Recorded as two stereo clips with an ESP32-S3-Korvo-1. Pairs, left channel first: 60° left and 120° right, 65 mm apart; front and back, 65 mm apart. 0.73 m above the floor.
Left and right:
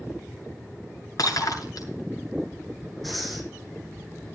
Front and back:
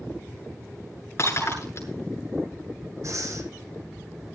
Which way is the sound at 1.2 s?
45° left.